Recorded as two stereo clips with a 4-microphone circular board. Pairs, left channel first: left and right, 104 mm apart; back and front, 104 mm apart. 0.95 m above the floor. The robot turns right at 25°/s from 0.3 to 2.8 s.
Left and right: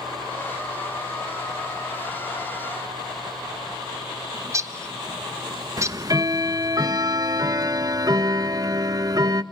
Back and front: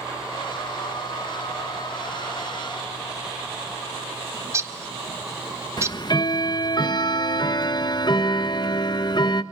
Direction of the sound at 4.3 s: 50° right.